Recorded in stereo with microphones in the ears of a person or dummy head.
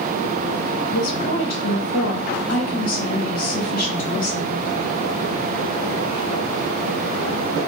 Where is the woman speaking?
55° left (ahead or behind), 2 m.